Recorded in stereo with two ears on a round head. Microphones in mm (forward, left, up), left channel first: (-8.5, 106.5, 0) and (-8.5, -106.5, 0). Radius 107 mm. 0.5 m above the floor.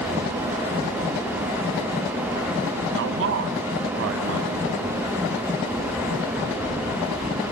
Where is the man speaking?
55° right (ahead or behind), 3.5 m.